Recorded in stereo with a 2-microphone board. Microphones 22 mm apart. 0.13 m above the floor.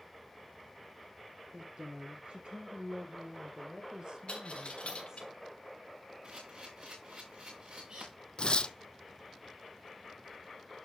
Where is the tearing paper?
45° left (ahead or behind), 0.7 m.